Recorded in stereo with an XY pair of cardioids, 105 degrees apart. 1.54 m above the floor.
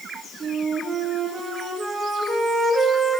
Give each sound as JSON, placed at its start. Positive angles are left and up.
{"t": 0.4, "sound": "a flute", "azimuth_deg": -35, "distance_m": 1.1}